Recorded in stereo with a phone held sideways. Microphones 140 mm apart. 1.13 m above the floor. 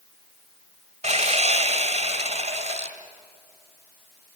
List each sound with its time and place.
1.0 s sawing: 55° right (ahead or behind), 2 m